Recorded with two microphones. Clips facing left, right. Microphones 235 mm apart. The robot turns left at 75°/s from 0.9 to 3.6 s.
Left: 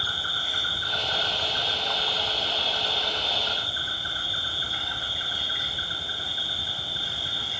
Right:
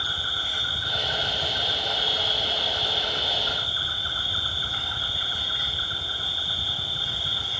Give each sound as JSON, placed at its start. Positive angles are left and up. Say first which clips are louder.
{"t": 0.0, "sound": "an insect", "louder": "even", "azimuth_deg": 0, "distance_m": 1.0}